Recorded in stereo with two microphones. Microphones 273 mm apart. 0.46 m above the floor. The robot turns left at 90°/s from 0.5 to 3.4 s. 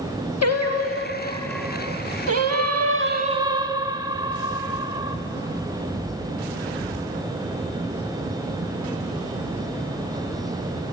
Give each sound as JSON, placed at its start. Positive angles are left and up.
{"t": 0.4, "sound": "singing", "azimuth_deg": 100, "distance_m": 0.5}